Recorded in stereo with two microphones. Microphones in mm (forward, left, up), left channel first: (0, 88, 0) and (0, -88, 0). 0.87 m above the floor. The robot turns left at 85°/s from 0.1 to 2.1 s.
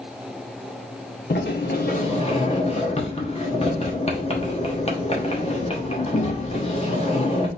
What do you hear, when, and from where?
1.3 s a sliding door: 105° left, 1.1 m; by 7.5 s 35° left, 1.1 m